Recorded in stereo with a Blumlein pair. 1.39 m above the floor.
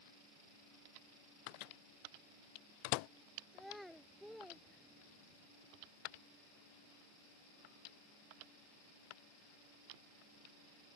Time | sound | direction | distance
1.5 | a microwave | 45° left | ?
3.5 | a child speaking | straight ahead | ?